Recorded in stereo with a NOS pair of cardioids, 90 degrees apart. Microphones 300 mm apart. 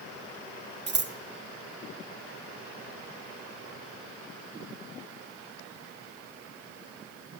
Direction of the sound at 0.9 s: 35° right.